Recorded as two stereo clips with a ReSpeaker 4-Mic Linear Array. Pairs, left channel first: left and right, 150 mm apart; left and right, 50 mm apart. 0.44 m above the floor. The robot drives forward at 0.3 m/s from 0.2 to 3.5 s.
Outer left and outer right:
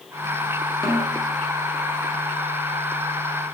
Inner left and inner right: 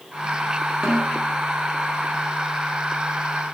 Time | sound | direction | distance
0.8 | a snare drum | 25° right (ahead or behind) | 1.6 m